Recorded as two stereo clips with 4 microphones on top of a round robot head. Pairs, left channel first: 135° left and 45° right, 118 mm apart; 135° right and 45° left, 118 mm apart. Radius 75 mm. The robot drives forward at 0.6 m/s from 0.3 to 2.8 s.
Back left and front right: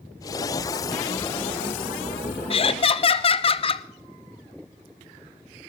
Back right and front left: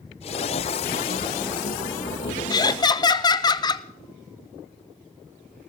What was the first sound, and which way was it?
Laughter, 170° left.